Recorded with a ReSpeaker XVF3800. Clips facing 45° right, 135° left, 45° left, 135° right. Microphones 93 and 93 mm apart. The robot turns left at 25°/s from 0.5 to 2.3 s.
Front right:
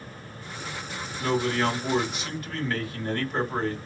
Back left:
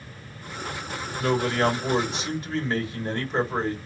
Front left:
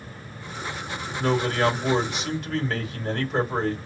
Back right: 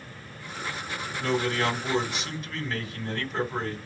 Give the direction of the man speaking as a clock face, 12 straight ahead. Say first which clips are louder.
Back left 2 dB, front left 4 dB; 9 o'clock.